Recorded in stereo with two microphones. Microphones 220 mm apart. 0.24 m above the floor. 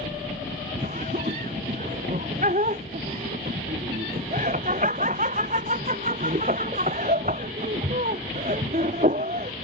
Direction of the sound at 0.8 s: 35° right (ahead or behind).